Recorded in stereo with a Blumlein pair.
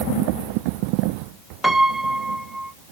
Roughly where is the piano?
Ahead.